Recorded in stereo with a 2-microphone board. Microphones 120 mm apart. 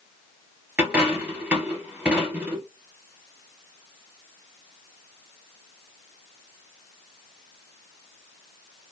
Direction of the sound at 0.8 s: 10° right (ahead or behind).